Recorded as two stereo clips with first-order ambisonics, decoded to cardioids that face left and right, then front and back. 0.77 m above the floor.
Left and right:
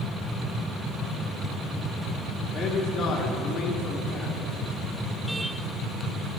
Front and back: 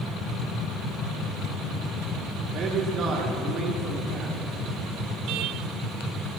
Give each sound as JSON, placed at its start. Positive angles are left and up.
{"t": 2.5, "sound": "a man speaking", "azimuth_deg": 140, "distance_m": 1.2}